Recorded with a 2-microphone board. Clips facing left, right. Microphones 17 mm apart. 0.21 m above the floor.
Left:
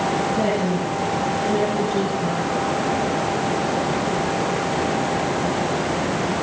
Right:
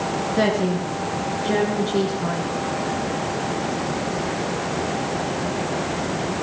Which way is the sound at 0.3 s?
55° right (ahead or behind).